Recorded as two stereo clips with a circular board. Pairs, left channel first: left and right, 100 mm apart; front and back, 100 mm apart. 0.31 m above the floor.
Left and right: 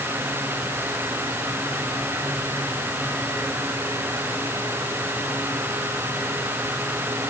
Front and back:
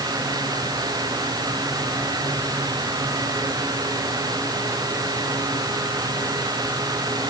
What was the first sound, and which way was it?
Only background noise.